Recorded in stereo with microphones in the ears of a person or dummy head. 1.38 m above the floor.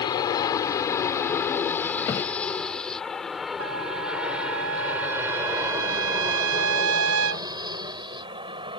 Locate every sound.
0.0 s an aircraft: 25° left (ahead or behind); by 8.8 s 25° right (ahead or behind)
2.0 s a thud: 20° left (ahead or behind)
3.6 s a trumpet: 70° right (ahead or behind)